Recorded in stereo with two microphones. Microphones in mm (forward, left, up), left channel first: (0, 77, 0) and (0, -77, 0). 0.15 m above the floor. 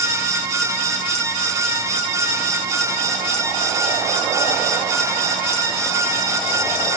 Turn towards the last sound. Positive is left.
No sound to turn to.